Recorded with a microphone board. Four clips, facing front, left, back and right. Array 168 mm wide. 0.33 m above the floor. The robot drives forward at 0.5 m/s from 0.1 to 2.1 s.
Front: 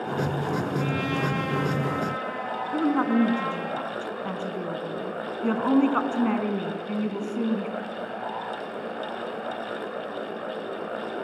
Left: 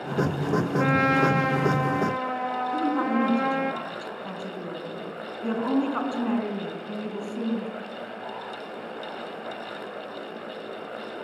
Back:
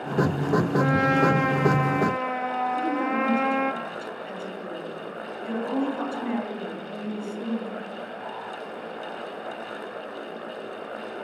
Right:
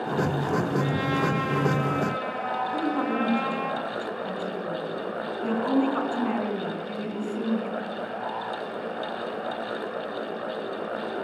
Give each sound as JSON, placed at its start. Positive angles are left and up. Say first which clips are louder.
{"t": 0.8, "sound": "a trumpet", "louder": "left 4 dB, back 6 dB", "azimuth_deg": 125, "distance_m": 1.4}
{"t": 2.7, "sound": "a woman speaking", "louder": "left 3 dB, front 3 dB", "azimuth_deg": 10, "distance_m": 4.0}